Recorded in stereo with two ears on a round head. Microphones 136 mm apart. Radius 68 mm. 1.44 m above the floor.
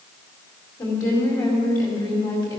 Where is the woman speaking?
25° left (ahead or behind), 5 m.